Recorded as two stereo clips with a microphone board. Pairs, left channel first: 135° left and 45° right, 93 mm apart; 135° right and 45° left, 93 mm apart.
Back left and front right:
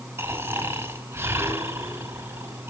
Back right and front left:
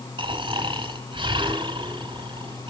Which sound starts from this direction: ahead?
Snoring, at 0.2 s.